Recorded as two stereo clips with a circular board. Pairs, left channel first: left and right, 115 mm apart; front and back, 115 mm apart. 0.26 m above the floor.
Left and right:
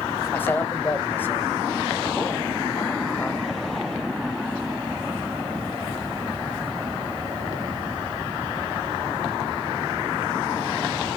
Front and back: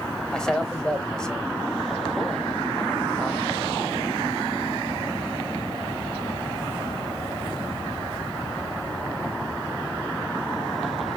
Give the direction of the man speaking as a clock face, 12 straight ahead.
10 o'clock.